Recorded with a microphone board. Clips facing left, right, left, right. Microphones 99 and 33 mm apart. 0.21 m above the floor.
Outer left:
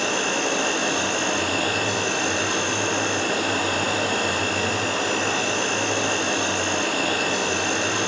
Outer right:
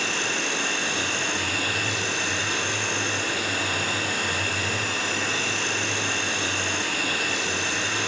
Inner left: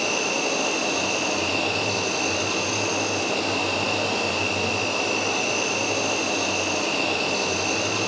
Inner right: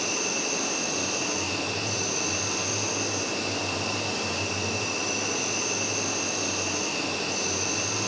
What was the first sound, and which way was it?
An insect, 55° left (ahead or behind).